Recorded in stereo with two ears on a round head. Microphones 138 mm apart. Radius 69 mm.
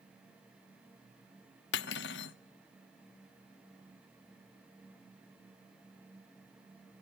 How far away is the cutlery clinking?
About 0.8 m.